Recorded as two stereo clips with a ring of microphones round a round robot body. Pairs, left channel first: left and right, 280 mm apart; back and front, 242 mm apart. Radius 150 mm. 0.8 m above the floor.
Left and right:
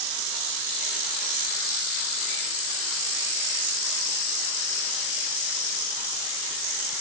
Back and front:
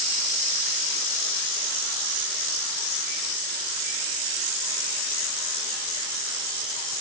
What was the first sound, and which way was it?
Only background noise.